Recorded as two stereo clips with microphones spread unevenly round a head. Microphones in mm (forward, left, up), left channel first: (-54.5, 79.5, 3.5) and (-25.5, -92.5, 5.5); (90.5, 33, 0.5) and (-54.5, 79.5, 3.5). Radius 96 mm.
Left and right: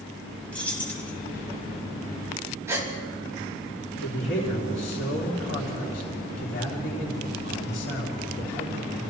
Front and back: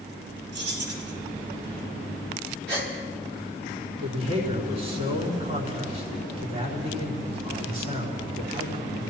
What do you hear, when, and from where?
0.5 s keys jangling: straight behind, 5.5 m
2.7 s a gasp: 155° right, 4.5 m
4.0 s a man speaking: 125° left, 4 m